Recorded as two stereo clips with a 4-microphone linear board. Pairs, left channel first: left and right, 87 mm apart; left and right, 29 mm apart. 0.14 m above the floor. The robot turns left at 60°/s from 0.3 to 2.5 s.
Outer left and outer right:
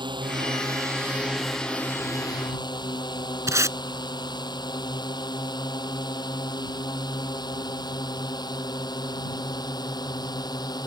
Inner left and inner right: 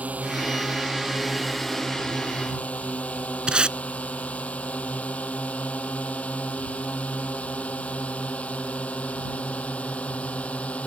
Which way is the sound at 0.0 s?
65° right (ahead or behind).